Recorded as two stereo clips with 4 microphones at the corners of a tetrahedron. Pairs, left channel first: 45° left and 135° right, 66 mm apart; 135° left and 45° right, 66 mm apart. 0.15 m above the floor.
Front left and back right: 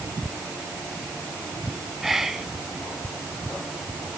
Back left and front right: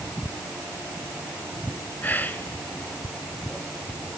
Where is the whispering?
145° left, 1.1 m.